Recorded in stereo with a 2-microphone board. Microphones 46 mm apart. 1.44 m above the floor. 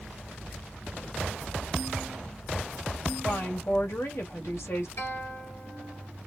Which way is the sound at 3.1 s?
75° left (ahead or behind).